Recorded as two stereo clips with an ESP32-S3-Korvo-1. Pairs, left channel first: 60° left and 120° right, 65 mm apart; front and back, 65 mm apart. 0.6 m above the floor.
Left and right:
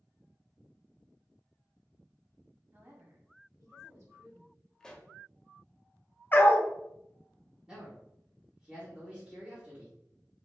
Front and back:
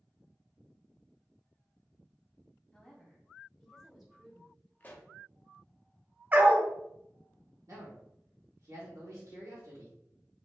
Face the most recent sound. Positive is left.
turn(degrees=165)